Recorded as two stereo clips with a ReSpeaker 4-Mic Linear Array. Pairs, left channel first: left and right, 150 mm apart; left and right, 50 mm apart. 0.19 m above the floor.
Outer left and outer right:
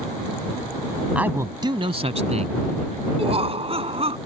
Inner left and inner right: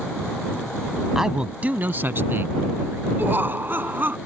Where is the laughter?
40° right (ahead or behind).